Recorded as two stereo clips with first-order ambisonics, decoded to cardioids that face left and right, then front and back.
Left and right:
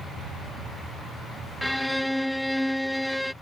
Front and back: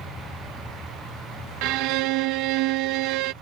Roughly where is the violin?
Behind.